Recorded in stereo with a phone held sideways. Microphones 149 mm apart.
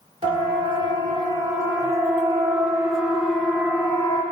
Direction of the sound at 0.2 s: 40° right (ahead or behind).